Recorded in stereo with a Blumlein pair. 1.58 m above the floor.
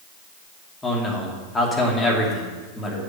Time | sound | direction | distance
0.8 | a man speaking | 10° left | 2.5 m